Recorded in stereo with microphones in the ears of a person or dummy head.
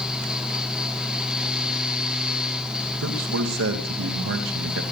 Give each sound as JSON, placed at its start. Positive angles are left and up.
{"t": 0.0, "sound": "a fan", "side_deg": -5, "distance_m": 1.1}
{"t": 3.0, "sound": "a man speaking", "side_deg": -85, "distance_m": 2.5}